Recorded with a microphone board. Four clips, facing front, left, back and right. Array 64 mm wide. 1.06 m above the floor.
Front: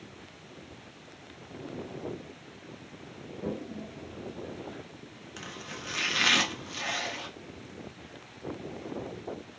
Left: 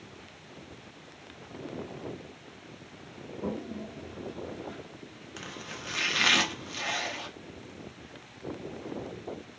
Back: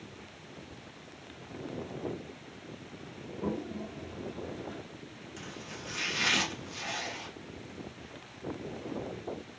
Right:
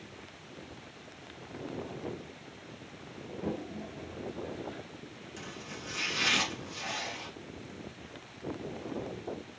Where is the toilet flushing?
145° left, 1.3 m.